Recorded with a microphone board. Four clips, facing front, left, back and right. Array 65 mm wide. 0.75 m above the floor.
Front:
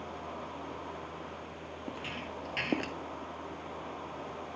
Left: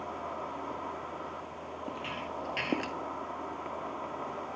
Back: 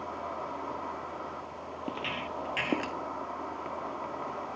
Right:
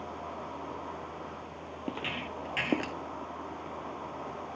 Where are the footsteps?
130° right, 1.1 m; by 3.0 s 95° left, 0.7 m.